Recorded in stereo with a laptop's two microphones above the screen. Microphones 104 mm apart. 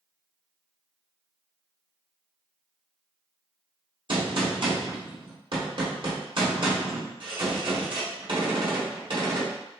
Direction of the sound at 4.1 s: 55° right (ahead or behind).